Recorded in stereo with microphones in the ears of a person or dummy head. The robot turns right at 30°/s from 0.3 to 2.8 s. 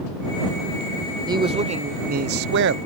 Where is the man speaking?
155° right; by 2.8 s 110° right.